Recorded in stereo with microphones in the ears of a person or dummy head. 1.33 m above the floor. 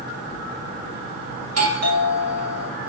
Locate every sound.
1.4 s a doorbell: 75° right (ahead or behind), 2.0 m